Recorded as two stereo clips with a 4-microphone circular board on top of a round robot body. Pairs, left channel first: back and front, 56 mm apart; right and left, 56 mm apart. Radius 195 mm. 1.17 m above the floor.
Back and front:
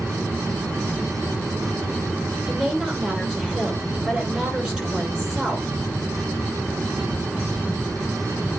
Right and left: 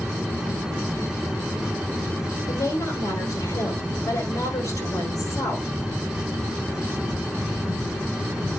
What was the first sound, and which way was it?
A woman speaking, 80° right.